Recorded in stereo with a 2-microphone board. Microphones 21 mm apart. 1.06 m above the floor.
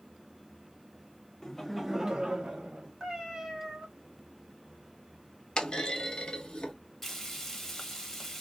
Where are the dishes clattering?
No dishes clattering in this recording.